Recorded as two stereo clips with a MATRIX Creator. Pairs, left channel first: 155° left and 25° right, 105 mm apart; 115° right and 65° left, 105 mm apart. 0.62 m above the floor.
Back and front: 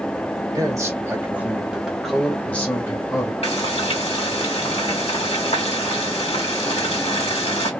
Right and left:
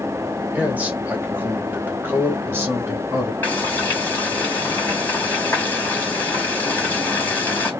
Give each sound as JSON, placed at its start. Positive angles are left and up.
{"t": 0.6, "sound": "a man speaking", "azimuth_deg": 0, "distance_m": 1.4}
{"t": 3.4, "sound": "frying", "azimuth_deg": 175, "distance_m": 1.8}